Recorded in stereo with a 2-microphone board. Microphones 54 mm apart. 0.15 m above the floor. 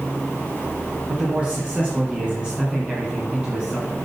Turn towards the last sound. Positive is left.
turn(degrees=-25)  # may be behind; listen again after turning